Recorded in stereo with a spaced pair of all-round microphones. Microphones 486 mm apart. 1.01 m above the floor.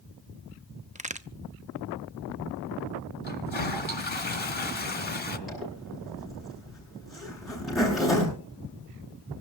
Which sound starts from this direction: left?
A toilet flushing, at 3.2 s.